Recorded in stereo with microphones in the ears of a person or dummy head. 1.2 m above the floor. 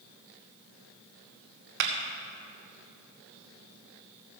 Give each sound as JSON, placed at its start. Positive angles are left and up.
{"t": 1.8, "sound": "a clap", "side_deg": -55, "distance_m": 1.3}